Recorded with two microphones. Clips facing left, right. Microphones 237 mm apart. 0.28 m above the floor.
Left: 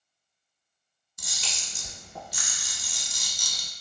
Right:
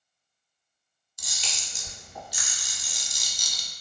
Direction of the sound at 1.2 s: 65° left (ahead or behind).